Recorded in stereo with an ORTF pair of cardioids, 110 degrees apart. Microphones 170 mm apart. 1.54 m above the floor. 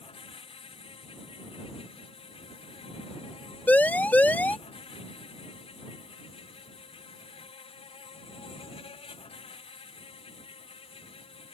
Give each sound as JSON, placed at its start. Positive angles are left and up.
{"t": 0.0, "sound": "an insect", "azimuth_deg": 35}
{"t": 3.7, "sound": "a siren", "azimuth_deg": 10}